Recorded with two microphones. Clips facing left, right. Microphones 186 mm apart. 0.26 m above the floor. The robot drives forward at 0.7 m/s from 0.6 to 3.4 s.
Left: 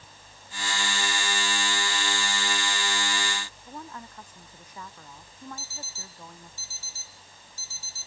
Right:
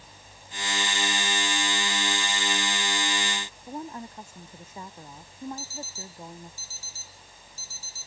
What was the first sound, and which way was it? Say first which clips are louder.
A woman speaking: right 9 dB; 25° right (ahead or behind).